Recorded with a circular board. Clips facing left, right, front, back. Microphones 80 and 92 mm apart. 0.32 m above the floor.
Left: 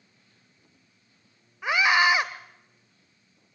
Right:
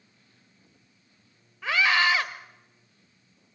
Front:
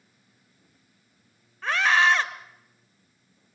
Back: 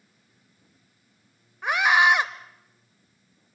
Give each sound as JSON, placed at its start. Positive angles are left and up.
{"t": 1.6, "sound": "a scream", "azimuth_deg": 130, "distance_m": 1.4}